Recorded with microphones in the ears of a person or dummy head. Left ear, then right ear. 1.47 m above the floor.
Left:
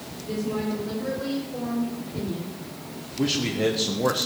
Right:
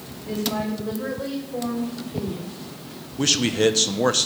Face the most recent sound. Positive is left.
turn(degrees=-85)